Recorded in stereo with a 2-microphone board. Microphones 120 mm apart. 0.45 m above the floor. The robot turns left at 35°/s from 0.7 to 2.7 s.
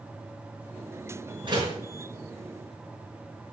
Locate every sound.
1.4 s a door slam: 40° right (ahead or behind), 5.5 m; by 1.8 s 30° right (ahead or behind), 5.5 m